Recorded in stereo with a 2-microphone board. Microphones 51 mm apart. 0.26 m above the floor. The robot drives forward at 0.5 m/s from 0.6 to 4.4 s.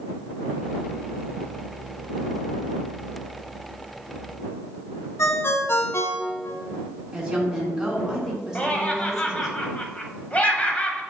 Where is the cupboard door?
No cupboard door in this recording.